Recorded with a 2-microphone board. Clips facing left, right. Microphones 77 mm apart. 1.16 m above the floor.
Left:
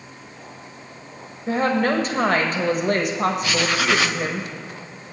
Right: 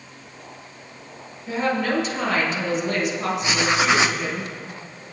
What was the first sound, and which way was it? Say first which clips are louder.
A woman speaking: left 3 dB; 50° left (ahead or behind).